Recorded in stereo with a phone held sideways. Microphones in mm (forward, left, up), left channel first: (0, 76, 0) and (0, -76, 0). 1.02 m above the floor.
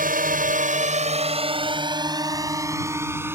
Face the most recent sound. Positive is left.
turn(degrees=-15)  # may be behind; listen again after turning